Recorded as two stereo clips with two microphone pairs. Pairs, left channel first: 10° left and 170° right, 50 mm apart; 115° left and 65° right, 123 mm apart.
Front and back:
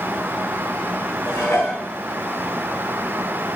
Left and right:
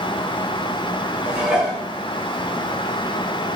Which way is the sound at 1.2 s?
20° left.